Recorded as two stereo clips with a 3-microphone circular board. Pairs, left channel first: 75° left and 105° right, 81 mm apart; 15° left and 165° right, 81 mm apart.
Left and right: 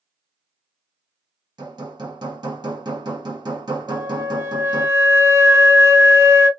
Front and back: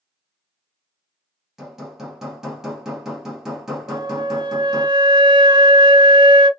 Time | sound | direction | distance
1.6 | hammering | 80° right | 1.8 m
3.9 | a flute | 160° right | 0.8 m